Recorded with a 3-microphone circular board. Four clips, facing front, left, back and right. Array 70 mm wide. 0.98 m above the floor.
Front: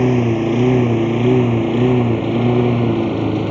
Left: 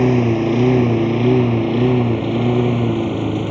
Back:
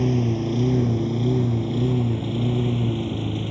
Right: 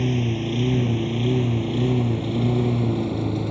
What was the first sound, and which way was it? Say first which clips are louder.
A lawn mower: left 9 dB, front 8 dB; 45° left.